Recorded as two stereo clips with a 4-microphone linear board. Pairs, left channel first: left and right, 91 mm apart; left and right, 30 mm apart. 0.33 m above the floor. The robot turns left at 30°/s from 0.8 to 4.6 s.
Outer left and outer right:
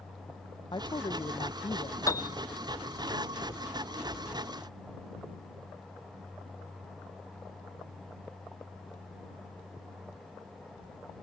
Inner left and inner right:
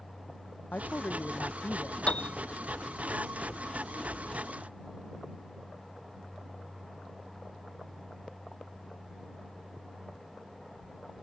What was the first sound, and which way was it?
A woman speaking, 115° left.